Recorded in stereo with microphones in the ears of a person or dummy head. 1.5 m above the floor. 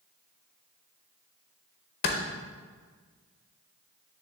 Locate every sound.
2.0 s a clap: 35° left (ahead or behind), 0.7 m